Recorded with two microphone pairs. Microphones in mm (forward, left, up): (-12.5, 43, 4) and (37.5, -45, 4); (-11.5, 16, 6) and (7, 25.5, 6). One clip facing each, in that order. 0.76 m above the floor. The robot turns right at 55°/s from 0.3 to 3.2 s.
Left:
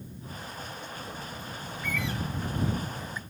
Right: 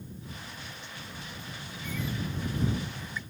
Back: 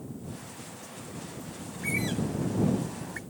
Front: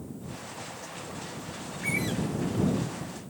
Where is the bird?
95° left; by 3.2 s straight behind.